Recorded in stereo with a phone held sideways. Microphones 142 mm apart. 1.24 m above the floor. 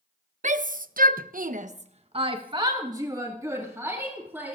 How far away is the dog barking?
No dog barking in this recording.